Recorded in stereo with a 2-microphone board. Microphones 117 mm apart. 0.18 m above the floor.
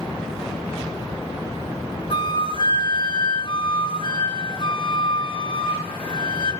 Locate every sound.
2.1 s a flute: 50° left (ahead or behind), 2 m